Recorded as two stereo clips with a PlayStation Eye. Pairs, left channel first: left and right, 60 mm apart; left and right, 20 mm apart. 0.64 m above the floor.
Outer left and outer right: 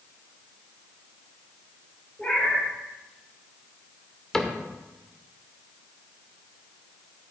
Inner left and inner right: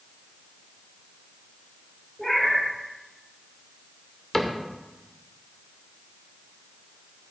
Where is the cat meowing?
20° left (ahead or behind), 4.5 m.